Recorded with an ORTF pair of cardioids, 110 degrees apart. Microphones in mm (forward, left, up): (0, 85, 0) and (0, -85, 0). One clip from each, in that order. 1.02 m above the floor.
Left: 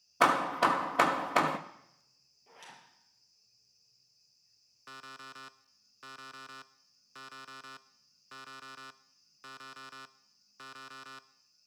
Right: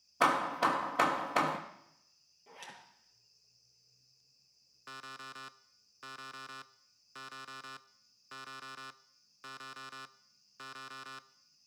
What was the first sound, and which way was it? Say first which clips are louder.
Hammering: left 3 dB; 20° left.